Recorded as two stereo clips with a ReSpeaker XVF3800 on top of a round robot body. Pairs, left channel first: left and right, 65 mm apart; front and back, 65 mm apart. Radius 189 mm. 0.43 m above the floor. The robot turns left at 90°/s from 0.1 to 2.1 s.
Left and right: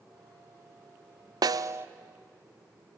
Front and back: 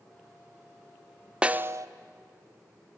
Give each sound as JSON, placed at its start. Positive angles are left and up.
{"t": 1.4, "sound": "a snare drum", "azimuth_deg": -105, "distance_m": 0.7}